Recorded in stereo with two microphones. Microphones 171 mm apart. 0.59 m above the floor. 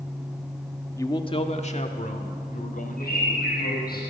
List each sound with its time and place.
1.0 s a man speaking: 15° left (ahead or behind), 1.1 m; by 4.0 s 55° left (ahead or behind), 4.5 m
3.0 s a bird: 60° left (ahead or behind), 8.5 m